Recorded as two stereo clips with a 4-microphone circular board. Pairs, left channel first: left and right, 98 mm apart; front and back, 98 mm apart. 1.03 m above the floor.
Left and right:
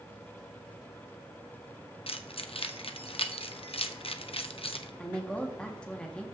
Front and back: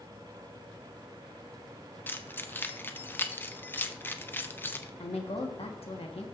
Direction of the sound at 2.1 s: 70° left.